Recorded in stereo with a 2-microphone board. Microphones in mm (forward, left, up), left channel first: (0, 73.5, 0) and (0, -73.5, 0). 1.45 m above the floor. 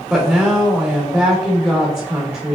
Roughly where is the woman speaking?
Centre.